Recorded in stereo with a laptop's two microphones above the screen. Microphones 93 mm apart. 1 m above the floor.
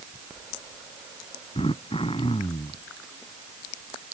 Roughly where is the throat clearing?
Left.